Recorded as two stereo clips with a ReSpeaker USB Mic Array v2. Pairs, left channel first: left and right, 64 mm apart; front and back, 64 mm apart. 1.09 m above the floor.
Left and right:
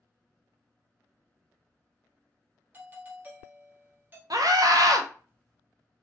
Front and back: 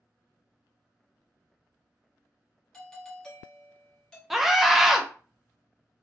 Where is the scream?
95° right, 0.5 m.